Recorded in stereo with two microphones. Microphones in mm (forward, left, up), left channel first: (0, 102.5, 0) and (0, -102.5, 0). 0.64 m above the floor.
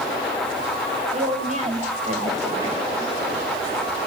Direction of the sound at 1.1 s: 35° right (ahead or behind).